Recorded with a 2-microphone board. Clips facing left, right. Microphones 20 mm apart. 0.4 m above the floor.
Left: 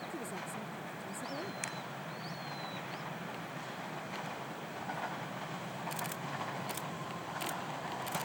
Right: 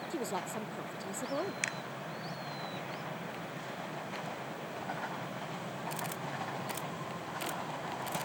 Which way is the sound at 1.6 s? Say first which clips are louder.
Right 5 dB; 40° right (ahead or behind).